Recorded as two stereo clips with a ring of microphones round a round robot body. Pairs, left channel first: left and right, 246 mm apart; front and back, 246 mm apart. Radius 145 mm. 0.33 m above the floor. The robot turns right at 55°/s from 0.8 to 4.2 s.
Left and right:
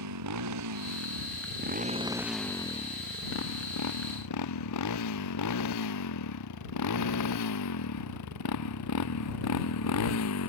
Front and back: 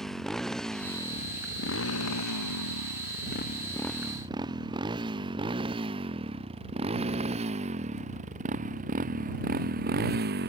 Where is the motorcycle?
90° right; by 10.5 s 125° left.